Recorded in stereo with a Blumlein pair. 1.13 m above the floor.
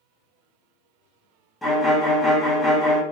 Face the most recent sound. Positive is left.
turn(degrees=10)